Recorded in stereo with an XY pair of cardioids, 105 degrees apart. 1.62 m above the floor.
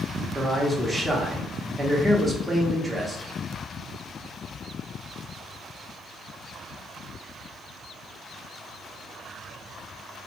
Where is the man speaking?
5° right, 0.9 m.